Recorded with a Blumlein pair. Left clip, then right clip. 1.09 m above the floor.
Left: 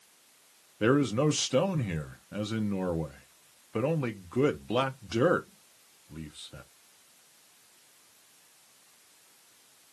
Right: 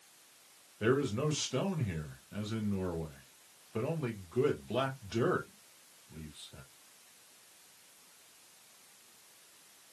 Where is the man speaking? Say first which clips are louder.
Left 6 dB; 25° left, 0.7 m.